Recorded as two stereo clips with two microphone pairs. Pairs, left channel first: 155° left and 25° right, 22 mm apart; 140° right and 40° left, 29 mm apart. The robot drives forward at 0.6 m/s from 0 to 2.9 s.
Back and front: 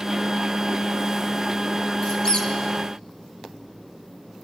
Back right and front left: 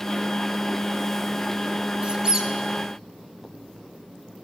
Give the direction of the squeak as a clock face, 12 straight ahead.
9 o'clock.